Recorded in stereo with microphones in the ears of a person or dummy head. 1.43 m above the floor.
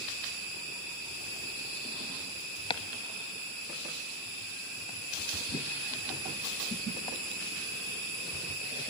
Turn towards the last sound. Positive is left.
turn(degrees=25)  # may be behind; listen again after turning